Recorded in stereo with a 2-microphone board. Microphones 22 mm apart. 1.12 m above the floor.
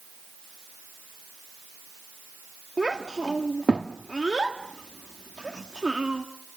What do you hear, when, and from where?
2.8 s a child speaking: 40° right (ahead or behind), 0.9 m